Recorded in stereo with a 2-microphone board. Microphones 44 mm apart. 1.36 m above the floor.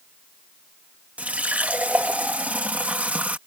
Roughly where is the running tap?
Right.